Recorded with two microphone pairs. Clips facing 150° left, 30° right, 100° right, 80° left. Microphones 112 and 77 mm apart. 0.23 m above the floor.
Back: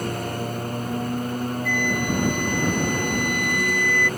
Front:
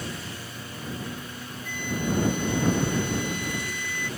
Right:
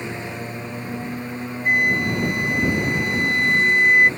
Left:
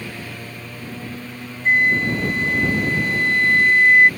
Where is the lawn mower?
170° right.